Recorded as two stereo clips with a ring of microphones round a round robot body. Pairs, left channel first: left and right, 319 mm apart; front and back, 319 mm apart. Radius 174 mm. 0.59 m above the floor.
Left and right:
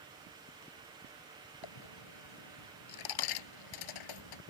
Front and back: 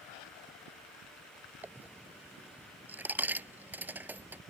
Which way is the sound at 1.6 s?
95° left.